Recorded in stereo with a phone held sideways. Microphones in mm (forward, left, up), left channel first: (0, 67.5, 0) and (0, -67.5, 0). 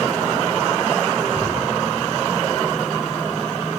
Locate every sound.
1.4 s a cupboard door: 20° left (ahead or behind), 7 m